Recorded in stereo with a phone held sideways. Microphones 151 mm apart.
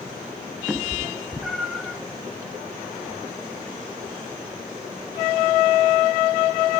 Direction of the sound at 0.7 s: 5° right (ahead or behind).